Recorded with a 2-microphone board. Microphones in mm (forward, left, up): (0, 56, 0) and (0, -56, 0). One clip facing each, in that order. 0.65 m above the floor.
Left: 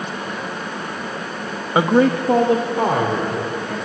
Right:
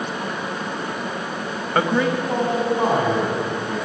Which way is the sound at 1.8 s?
10° left (ahead or behind).